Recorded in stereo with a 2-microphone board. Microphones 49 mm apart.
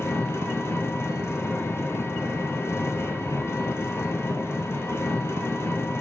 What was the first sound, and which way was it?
An engine running, 55° left (ahead or behind).